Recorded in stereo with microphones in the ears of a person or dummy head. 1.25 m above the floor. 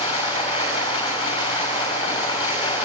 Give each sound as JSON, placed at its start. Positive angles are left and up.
{"t": 0.0, "sound": "running water", "side_deg": 20, "distance_m": 7.0}